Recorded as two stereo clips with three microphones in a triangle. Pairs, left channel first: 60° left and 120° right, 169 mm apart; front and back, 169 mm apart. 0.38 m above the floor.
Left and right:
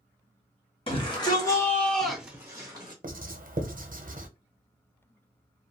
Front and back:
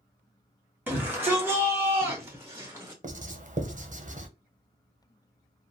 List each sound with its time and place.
0.9 s a shout: 105° left, 1.1 m; by 2.9 s 120° right, 0.8 m
3.0 s writing: 145° right, 0.6 m